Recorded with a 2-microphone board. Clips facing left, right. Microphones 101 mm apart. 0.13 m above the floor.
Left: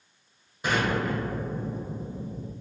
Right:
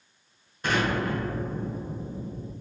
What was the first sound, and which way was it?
An explosion, 10° left (ahead or behind).